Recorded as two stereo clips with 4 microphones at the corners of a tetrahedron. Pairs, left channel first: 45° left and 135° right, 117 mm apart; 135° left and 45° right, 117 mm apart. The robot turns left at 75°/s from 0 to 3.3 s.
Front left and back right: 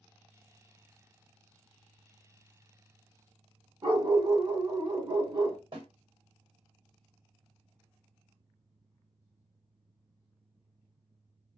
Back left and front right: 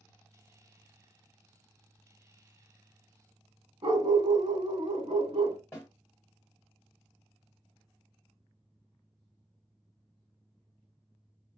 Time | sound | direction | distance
3.8 | a dog barking | 90° right | 0.8 m
5.7 | a snare drum | 160° right | 1.8 m